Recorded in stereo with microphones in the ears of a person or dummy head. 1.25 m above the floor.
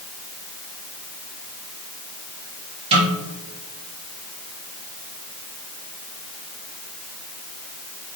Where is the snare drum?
35° right (ahead or behind), 3 m.